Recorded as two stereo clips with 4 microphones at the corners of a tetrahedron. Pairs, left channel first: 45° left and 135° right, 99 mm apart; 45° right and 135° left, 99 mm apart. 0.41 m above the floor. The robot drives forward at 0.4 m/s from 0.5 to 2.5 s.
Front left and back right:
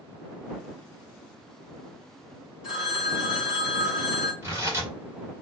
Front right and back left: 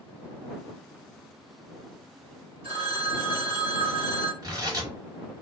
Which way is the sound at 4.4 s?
170° left.